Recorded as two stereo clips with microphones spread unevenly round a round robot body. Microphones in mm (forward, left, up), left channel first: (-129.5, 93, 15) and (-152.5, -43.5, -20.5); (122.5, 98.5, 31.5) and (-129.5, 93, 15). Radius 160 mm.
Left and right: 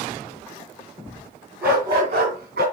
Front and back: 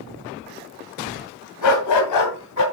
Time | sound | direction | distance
1.6 | a dog barking | 10° right | 2.5 m